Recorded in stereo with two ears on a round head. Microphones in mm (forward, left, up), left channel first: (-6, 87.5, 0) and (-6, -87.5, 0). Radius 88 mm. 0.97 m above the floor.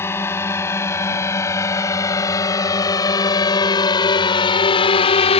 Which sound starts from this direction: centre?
A drone, at 0.0 s.